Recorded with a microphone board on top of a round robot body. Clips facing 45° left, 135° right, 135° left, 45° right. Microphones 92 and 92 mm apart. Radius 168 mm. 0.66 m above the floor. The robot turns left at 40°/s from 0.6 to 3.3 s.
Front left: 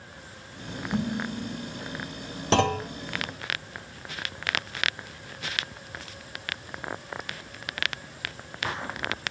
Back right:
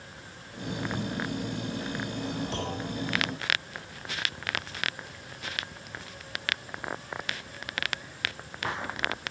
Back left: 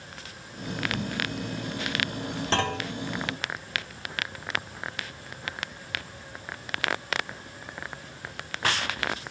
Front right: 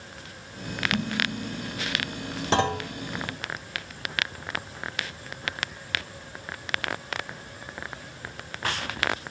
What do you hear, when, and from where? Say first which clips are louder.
0.9 s dishes clattering: front left 7 dB, front right 2 dB; 30° right, 4.5 m; by 1.8 s 60° right, 4.5 m
2.5 s a clunk: front left 10 dB, front right 4 dB; 30° left, 0.5 m; by 2.9 s 15° left, 0.5 m